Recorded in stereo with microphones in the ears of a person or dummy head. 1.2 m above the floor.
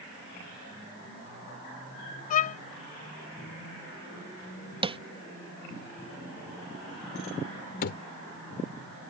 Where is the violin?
45° left (ahead or behind).